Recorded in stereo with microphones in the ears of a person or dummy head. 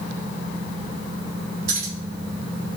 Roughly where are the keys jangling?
Right.